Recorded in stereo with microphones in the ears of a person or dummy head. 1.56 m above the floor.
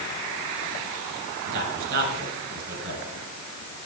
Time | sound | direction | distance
1.4 | a man speaking | 60° right (ahead or behind) | 7.5 m